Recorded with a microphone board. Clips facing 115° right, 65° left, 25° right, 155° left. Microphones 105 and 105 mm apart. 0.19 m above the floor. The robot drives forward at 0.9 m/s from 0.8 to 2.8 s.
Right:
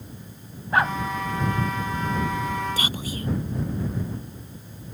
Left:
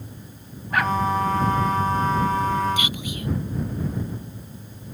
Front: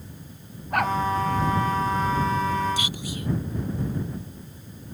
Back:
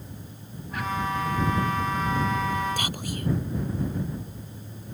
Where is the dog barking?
50° right.